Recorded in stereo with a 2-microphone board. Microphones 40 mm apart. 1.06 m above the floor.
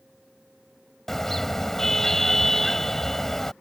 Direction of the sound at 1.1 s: 10° left (ahead or behind).